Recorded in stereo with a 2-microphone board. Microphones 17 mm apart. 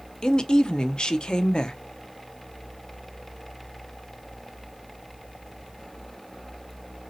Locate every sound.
0.2 s a woman speaking: 70° left (ahead or behind), 0.5 m